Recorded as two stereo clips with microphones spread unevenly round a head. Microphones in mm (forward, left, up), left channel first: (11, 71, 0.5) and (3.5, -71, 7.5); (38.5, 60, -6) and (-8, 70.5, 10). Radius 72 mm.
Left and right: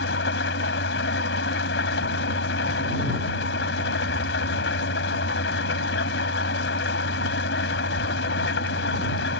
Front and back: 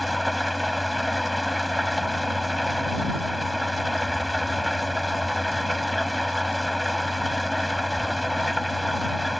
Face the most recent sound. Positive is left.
turn(degrees=85)